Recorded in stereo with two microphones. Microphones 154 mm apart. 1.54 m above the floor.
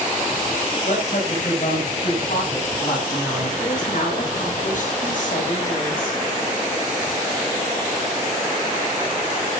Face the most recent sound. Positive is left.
turn(degrees=65)  # may be behind; listen again after turning